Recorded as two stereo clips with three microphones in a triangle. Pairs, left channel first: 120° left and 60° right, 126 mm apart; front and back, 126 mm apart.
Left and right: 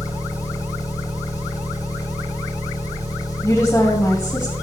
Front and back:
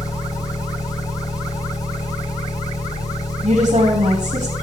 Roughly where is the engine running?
Ahead left.